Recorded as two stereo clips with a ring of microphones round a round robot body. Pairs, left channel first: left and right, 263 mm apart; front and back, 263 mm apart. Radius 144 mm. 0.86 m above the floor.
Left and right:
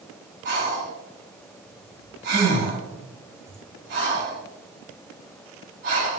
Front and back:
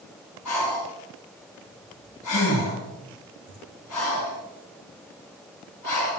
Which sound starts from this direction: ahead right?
Breathing, at 0.5 s.